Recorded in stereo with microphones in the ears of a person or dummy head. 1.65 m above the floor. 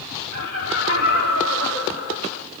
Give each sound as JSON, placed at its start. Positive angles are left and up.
{"t": 0.3, "sound": "laughter", "side_deg": 75, "distance_m": 6.0}